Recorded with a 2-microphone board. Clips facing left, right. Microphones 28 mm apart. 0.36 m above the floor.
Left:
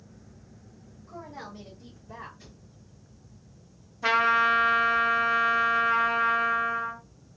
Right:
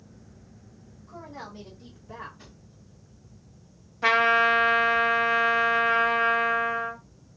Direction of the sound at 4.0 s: 65° right (ahead or behind).